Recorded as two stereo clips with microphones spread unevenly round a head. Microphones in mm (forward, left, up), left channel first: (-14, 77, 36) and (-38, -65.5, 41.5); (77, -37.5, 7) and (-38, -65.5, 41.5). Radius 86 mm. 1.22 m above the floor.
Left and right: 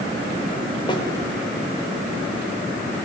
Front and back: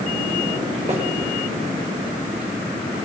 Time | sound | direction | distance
0.9 | a snare drum | 140° left | 5 m